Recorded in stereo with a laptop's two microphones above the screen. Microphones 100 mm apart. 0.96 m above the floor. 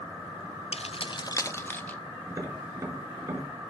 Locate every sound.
0.7 s keys jangling: 80° left, 0.5 m; by 2.0 s 15° left (ahead or behind), 1.2 m
2.3 s tapping: 35° right (ahead or behind), 4.5 m